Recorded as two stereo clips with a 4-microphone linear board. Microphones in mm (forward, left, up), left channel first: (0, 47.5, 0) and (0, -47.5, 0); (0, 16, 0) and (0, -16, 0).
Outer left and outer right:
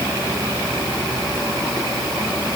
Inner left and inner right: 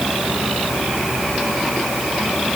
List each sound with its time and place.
Only background noise.